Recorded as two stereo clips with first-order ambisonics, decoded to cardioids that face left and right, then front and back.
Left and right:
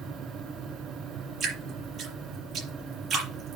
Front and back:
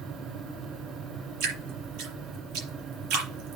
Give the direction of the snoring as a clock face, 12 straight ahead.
I don't hear snoring.